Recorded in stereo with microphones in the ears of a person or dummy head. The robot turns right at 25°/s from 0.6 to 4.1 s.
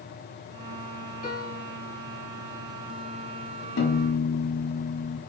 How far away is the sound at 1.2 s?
About 1.2 m.